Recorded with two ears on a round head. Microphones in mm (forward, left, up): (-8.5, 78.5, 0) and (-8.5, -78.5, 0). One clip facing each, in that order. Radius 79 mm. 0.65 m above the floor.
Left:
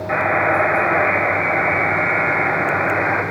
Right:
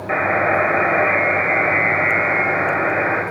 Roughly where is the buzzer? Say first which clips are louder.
Right 1 dB; right.